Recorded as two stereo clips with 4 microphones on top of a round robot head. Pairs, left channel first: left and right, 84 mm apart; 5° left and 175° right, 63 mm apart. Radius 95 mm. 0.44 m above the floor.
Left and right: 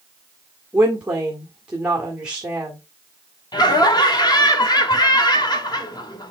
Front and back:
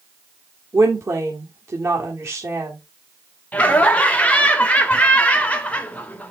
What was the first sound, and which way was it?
A woman speaking, 160° right.